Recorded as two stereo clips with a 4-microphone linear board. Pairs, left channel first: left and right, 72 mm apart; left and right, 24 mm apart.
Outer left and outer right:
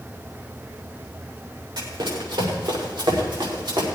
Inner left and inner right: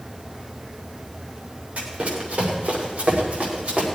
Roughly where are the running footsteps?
Right.